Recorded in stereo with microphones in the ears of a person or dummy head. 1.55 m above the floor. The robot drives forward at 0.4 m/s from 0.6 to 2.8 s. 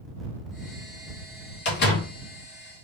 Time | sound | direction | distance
1.6 | a door slam | 60° left (ahead or behind) | 2.0 m